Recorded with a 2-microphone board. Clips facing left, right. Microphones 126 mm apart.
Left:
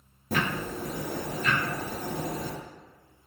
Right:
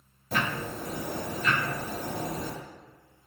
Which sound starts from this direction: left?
Ticking, at 0.3 s.